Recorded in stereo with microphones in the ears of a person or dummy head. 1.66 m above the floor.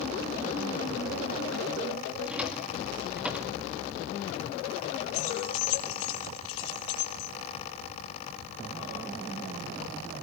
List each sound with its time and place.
2.2 s a drawer: 5° right (ahead or behind), 2 m
5.1 s keys jangling: 65° left (ahead or behind), 1.9 m